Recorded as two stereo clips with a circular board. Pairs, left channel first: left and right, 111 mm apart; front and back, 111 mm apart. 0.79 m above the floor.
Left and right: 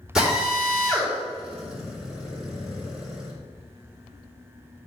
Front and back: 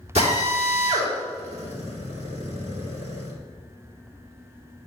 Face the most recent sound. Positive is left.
turn(degrees=-175)